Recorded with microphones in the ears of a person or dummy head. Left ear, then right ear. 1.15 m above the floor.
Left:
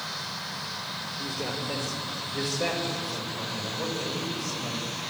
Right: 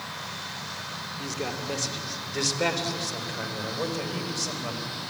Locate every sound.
1.2 s a man speaking: 35° right (ahead or behind), 3 m; by 4.9 s 55° right (ahead or behind), 5 m